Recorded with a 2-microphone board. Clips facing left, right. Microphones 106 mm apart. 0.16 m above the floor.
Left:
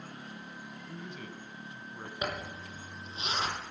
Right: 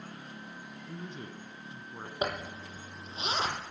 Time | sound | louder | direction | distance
0.9 | a man speaking | right 2 dB | 30° right (ahead or behind) | 1.2 m
2.2 | a zipper | right 3 dB | 35° right (ahead or behind) | 2.5 m